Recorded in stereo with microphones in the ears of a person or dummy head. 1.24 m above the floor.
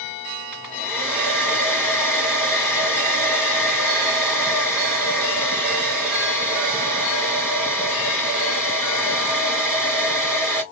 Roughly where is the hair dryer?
Centre.